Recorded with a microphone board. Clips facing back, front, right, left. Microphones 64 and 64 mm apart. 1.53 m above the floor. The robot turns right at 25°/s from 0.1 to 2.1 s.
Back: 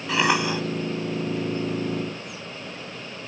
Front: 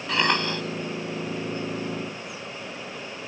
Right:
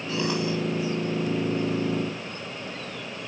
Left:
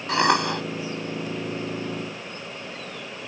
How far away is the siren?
I don't hear a siren.